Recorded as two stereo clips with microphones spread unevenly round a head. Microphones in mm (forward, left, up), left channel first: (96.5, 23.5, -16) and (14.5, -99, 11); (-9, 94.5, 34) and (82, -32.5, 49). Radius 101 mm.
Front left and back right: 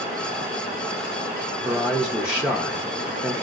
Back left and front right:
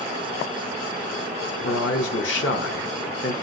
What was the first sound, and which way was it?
A man speaking, 155° left.